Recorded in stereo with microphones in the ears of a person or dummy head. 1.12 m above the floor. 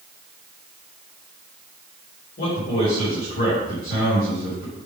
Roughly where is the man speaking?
Left.